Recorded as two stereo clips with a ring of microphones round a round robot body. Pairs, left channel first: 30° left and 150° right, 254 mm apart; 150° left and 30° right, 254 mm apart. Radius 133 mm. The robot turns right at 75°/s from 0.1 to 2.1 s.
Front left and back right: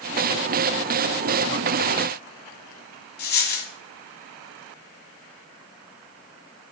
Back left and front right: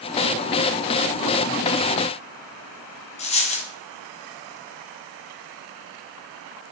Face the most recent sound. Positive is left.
turn(degrees=85)